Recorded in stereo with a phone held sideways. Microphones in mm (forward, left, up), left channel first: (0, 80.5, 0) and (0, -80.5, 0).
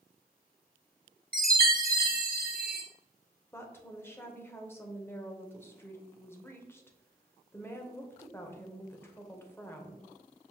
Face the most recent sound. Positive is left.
turn(degrees=15)  # may be behind; listen again after turning